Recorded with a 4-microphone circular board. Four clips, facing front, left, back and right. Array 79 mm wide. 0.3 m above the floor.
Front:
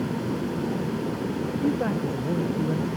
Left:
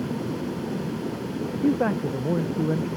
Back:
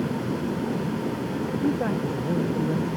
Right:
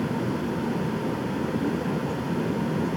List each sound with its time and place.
1.6 s a man speaking: 90° left